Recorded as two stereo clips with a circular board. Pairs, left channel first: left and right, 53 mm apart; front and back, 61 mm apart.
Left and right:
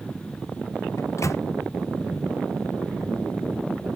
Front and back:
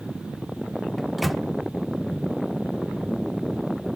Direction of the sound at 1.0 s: 90° left.